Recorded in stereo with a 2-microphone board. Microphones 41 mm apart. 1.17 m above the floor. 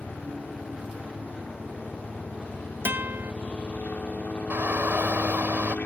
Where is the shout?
60° right (ahead or behind).